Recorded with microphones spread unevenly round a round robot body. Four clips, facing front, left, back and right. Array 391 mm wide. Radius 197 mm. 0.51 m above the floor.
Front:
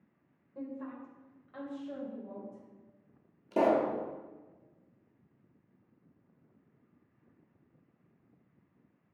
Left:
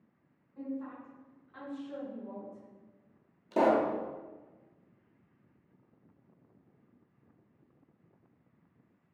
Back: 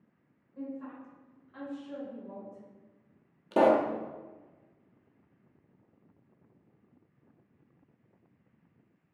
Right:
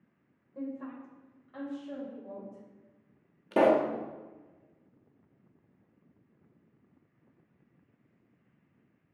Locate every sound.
0.6 s a woman speaking: 50° right, 2.5 m
3.5 s a pop: 120° right, 0.7 m